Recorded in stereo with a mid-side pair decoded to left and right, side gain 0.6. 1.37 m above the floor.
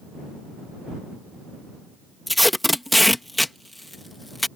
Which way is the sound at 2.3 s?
5° left.